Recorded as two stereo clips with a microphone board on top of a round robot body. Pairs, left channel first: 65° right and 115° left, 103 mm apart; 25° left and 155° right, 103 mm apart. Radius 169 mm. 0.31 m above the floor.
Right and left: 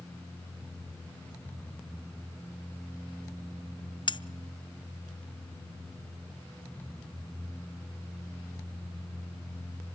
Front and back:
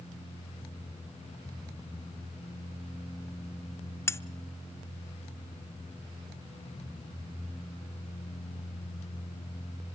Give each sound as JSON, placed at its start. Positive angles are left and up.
{"t": 4.1, "sound": "cutlery clinking", "azimuth_deg": -40, "distance_m": 0.8}